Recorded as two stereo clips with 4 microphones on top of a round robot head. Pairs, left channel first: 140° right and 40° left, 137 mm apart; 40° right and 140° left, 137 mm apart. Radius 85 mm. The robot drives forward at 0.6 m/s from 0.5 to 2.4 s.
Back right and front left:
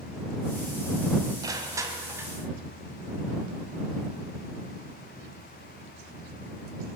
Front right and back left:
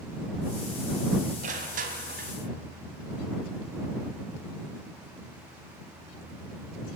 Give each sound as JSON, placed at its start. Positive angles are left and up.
{"t": 1.4, "sound": "crushing", "azimuth_deg": 105, "distance_m": 2.5}